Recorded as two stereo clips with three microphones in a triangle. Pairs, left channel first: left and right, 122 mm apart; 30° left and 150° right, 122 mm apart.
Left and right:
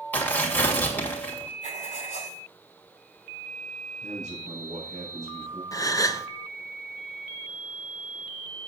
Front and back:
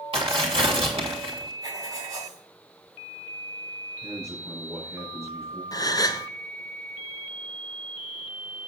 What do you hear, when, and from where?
0.1 s tearing paper: 170° left, 2.5 m
1.6 s writing: 90° right, 5.5 m
4.0 s a man speaking: 80° right, 3.5 m
5.7 s a gasp: 55° left, 0.5 m